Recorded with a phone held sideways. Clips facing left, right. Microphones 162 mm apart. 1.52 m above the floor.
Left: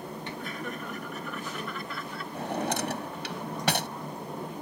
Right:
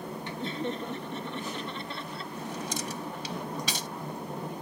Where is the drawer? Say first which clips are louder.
Left 7 dB; 60° left (ahead or behind).